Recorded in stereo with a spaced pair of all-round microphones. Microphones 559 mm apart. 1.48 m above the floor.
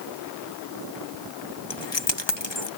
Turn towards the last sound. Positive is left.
turn(degrees=50)  # may be behind; listen again after turning